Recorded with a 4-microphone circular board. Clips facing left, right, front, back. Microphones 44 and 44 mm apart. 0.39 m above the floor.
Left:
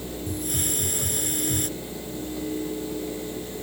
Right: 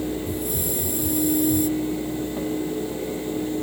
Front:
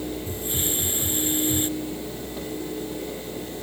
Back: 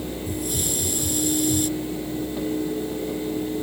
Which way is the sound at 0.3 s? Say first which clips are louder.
Right 3 dB, back 2 dB; 60° left.